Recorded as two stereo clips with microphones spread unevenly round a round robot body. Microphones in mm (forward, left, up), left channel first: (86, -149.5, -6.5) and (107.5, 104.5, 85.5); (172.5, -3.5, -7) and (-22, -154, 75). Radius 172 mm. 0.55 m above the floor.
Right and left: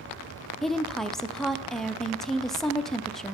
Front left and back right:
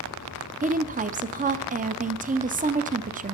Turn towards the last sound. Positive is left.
turn(degrees=-80)